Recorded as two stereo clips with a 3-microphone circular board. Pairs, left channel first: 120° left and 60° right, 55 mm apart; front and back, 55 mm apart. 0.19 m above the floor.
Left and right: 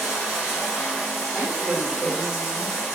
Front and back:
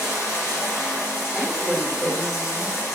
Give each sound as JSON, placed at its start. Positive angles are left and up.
{"t": 0.0, "sound": "running water", "azimuth_deg": 25, "distance_m": 4.0}
{"t": 1.3, "sound": "a woman speaking", "azimuth_deg": -55, "distance_m": 1.8}